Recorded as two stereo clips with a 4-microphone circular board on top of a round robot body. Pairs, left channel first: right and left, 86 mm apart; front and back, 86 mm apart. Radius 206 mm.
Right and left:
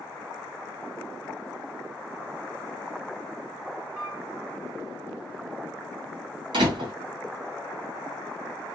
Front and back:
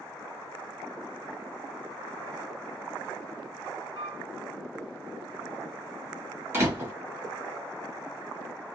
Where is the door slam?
115° left, 1.4 m.